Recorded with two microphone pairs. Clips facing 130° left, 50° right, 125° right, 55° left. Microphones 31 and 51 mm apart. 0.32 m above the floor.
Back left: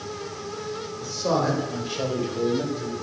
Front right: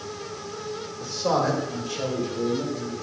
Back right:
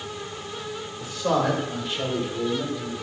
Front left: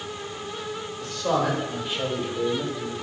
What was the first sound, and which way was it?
A man speaking, 50° right.